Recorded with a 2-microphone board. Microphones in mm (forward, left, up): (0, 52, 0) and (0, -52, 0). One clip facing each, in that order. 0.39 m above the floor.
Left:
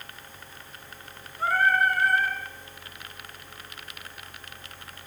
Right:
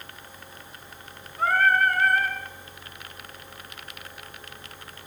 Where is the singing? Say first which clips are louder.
Right 2 dB; 55° right (ahead or behind), 4 m.